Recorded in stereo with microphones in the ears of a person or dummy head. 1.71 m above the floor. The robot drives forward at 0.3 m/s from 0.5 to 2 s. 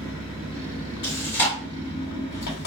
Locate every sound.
0.0 s an engine running: 65° left (ahead or behind), 1.1 m; by 2.7 s 50° left (ahead or behind), 1.3 m
1.0 s chewing: 20° left (ahead or behind), 1.7 m; by 1.6 s 25° left (ahead or behind), 1.6 m